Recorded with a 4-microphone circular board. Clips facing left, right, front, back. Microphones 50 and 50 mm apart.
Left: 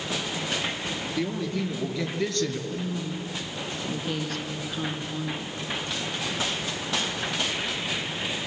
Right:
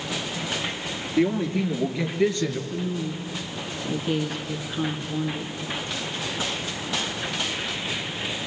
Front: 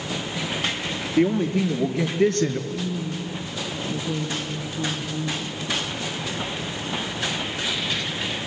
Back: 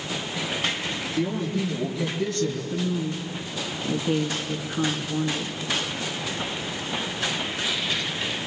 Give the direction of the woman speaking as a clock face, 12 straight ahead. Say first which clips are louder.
Right 2 dB, back 1 dB; 6 o'clock.